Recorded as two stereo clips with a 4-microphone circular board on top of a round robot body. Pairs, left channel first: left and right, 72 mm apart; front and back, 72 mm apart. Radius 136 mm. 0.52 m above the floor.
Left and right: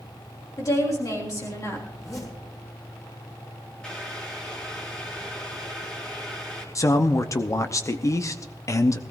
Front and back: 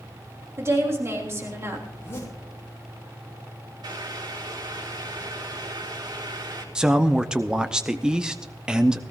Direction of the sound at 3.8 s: 165° left.